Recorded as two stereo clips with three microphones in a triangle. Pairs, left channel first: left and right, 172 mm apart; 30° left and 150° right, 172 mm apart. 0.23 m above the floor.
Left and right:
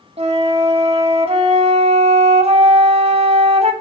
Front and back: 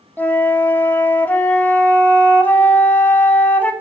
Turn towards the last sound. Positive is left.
turn(degrees=-50)